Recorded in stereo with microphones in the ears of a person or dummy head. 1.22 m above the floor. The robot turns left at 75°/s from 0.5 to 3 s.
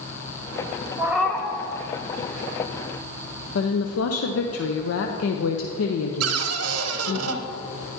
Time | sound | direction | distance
1.0 | a cat meowing | 165° right | 0.7 m
3.5 | a woman speaking | 75° left (ahead or behind) | 0.7 m
6.2 | a cupboard door | 75° right (ahead or behind) | 0.8 m